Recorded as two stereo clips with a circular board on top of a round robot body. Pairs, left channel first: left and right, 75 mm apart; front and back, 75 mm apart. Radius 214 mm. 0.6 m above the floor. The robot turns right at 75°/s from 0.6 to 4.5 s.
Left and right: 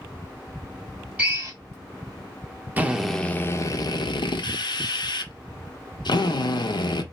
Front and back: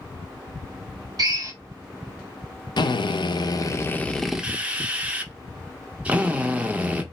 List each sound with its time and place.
1.2 s a drill: 160° right, 1.6 m; by 1.5 s 135° right, 1.6 m
2.8 s a drill: 25° right, 0.8 m; by 7.0 s 105° left, 0.8 m